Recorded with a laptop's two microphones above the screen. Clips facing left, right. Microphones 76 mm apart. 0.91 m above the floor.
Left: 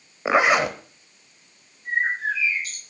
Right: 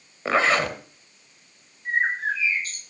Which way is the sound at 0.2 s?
15° left (ahead or behind).